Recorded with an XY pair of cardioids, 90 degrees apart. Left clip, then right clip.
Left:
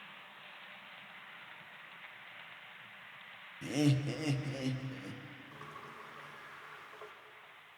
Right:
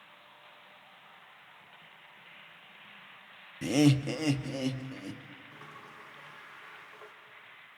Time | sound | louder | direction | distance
3.6 | laughter | right 7 dB | 70° right | 0.6 m
5.5 | a sliding door | left 2 dB | 10° left | 4 m